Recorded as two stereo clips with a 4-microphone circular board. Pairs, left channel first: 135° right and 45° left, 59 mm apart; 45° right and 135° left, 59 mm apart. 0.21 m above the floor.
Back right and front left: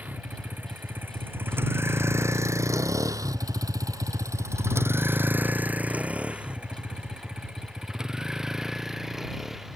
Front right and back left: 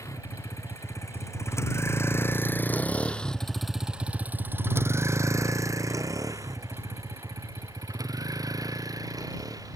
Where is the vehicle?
15° right; by 9.8 s 130° left.